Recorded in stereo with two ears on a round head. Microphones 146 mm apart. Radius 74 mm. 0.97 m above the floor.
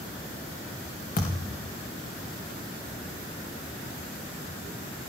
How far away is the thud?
About 3.5 m.